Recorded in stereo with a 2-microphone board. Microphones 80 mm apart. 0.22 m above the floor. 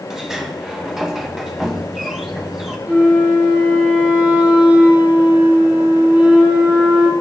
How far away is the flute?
About 5 m.